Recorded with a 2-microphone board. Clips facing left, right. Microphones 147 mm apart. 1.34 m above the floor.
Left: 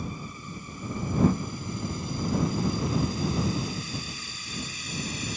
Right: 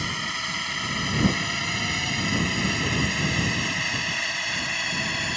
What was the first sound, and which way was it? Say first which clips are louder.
A drone: right 3 dB; 85° right.